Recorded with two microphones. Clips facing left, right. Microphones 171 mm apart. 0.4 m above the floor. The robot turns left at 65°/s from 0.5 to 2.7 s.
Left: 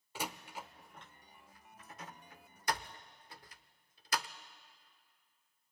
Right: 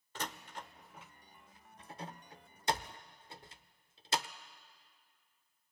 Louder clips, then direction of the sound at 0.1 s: Left 1 dB; 10° left (ahead or behind).